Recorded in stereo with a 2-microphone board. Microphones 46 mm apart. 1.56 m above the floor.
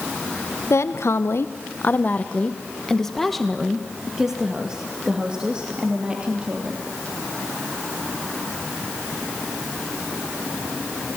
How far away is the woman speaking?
About 1.3 m.